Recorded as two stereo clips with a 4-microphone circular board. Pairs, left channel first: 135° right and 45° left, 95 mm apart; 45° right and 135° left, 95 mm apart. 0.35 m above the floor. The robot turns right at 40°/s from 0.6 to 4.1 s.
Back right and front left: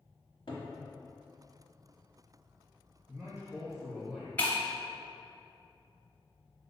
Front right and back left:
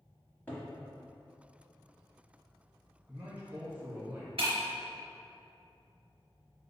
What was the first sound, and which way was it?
A cupboard door, 115° right.